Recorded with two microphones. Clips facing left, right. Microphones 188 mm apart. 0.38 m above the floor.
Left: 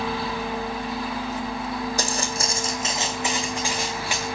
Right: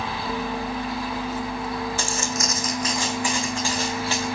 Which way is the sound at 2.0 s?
40° left (ahead or behind).